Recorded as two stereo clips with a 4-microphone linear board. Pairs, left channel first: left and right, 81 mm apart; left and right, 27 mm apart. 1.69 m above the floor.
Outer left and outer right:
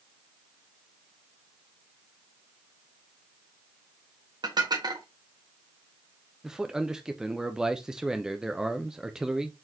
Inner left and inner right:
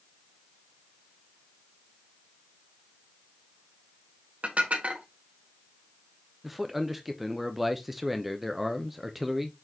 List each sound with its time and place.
4.4 s dishes clattering: 60° right (ahead or behind), 1.6 m
6.4 s a man speaking: 10° right (ahead or behind), 0.7 m